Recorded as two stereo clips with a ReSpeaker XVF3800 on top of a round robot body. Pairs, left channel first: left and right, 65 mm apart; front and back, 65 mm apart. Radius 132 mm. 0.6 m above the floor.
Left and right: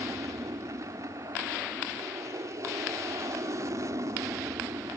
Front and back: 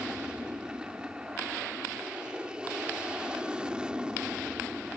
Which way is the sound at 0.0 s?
110° right.